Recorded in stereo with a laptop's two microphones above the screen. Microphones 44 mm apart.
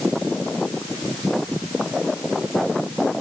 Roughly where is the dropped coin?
No dropped coin in this recording.